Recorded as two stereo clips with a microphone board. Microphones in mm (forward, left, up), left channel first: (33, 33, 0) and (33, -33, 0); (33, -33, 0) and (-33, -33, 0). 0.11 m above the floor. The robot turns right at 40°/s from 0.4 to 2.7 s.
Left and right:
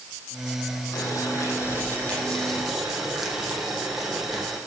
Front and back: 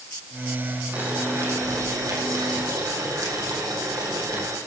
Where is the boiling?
115° left, 5 m; by 4.6 s 175° right, 5 m.